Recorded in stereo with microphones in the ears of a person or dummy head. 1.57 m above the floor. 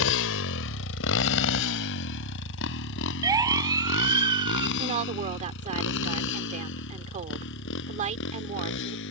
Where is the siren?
20° right (ahead or behind).